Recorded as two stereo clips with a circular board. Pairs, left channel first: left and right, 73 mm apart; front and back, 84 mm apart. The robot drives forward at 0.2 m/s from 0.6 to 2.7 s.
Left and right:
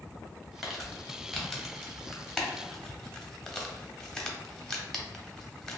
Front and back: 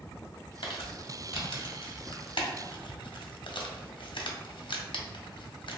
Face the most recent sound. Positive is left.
turn(degrees=10)